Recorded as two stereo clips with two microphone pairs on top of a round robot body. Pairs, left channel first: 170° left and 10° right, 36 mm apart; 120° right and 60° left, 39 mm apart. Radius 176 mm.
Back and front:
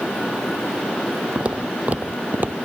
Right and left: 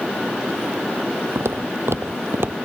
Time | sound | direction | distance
1.4 | footsteps | 50° left | ?